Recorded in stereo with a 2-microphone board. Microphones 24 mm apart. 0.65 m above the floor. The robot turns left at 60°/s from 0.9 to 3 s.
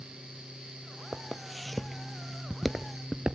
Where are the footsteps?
20° right (ahead or behind), 1.3 m; by 3.4 s 35° right (ahead or behind), 0.7 m.